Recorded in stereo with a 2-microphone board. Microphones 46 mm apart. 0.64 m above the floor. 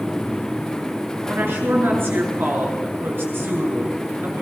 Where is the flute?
I don't hear a flute.